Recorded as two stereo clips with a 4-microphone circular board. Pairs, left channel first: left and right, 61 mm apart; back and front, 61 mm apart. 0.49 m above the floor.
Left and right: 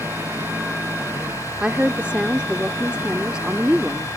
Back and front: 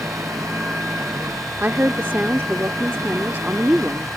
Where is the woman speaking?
30° right.